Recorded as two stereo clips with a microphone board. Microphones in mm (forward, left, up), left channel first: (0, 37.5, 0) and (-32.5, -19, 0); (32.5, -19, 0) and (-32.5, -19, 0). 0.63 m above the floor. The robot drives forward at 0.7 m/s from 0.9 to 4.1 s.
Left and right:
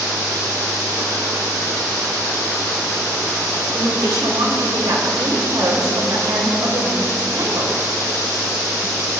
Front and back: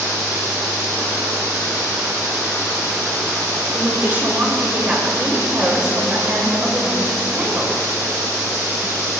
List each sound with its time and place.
3.7 s a woman speaking: 115° right, 2.5 m; by 7.8 s 120° right, 2.5 m